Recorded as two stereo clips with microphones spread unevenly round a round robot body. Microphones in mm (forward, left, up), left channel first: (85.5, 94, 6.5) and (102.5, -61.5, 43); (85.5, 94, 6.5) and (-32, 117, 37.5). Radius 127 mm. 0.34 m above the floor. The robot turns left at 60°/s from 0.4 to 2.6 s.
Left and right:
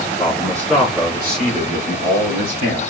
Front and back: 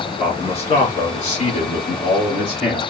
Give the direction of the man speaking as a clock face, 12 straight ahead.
11 o'clock.